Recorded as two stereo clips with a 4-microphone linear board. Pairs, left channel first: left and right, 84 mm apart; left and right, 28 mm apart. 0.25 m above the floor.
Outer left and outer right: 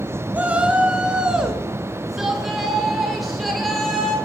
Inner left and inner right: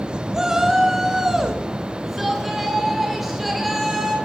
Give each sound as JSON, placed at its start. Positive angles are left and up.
{"t": 0.3, "sound": "a shout", "side_deg": -15, "distance_m": 2.5}